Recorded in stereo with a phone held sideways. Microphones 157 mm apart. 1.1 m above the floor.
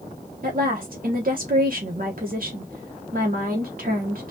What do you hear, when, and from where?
0.4 s a woman speaking: 60° right (ahead or behind), 0.9 m